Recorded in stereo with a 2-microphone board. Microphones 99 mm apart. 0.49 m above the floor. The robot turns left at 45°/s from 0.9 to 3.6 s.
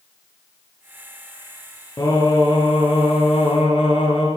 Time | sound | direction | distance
2.0 | singing | 140° left | 3 m